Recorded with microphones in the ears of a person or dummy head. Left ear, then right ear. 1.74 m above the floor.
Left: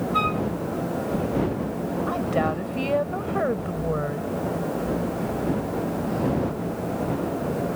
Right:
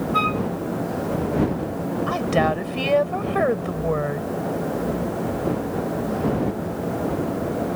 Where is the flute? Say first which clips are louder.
Right 2 dB; 5° right (ahead or behind).